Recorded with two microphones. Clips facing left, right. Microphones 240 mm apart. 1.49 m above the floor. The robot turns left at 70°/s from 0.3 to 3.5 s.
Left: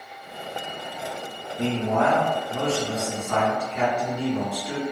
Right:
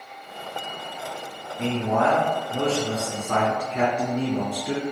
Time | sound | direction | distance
1.6 | a man speaking | 60° left | 0.9 m